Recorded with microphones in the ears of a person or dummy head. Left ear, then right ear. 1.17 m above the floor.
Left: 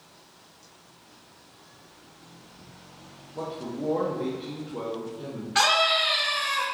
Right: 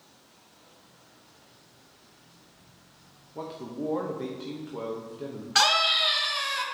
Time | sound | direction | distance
3.4 | a man speaking | 25° right (ahead or behind) | 0.9 m
5.5 | a scream | 20° right (ahead or behind) | 1.3 m